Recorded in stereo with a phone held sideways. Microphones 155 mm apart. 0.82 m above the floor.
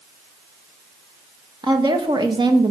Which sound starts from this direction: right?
A woman speaking, at 1.6 s.